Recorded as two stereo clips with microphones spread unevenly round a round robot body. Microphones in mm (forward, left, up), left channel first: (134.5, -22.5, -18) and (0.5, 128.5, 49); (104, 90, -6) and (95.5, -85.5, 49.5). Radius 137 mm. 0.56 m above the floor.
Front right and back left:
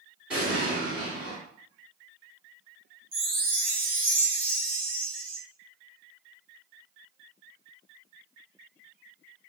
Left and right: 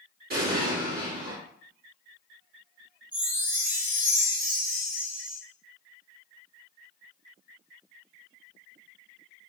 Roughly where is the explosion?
Behind right.